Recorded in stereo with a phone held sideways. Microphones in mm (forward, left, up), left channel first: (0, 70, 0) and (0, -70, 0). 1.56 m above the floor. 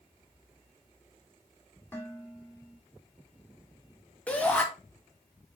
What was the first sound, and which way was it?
Dishes clattering, 15° left (ahead or behind).